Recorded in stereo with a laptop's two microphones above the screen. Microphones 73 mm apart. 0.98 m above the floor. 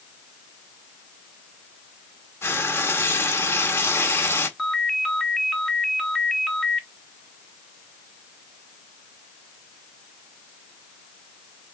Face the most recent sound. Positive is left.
turn(degrees=5)  # may be behind; listen again after turning